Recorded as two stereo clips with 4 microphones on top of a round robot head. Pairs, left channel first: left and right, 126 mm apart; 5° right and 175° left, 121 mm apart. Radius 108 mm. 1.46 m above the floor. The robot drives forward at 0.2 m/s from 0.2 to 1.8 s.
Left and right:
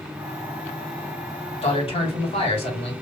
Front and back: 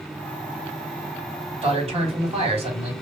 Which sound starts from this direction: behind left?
A man speaking, at 1.6 s.